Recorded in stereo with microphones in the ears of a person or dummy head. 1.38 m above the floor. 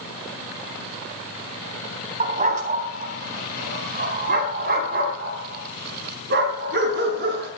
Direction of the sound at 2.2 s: 40° right (ahead or behind).